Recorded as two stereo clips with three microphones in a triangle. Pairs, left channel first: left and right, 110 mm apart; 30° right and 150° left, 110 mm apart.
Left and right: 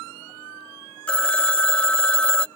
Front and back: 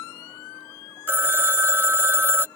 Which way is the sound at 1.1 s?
150° left.